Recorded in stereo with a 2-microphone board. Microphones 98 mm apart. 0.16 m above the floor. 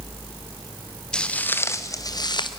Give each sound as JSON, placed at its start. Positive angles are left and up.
{"t": 1.1, "sound": "footsteps", "side_deg": 5, "distance_m": 1.5}